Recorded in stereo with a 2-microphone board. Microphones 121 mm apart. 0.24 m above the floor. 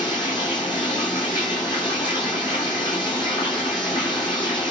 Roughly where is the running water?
Left.